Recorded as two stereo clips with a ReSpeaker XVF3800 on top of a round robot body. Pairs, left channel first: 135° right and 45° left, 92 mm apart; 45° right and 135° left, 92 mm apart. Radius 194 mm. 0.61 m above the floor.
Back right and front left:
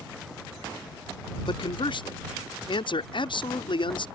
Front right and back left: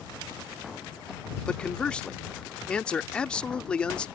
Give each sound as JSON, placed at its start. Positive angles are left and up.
{"t": 1.5, "sound": "a man speaking", "azimuth_deg": -125}